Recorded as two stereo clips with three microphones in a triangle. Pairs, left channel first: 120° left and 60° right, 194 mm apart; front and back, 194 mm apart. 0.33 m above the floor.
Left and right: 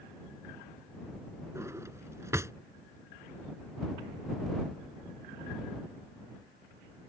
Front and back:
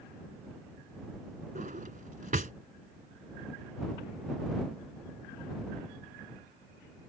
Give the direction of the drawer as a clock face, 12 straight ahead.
4 o'clock.